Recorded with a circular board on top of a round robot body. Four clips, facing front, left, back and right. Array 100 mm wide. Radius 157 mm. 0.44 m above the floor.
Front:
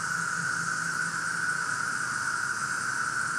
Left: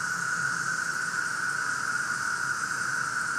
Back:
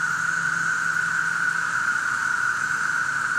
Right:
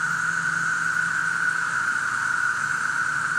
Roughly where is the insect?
Behind right.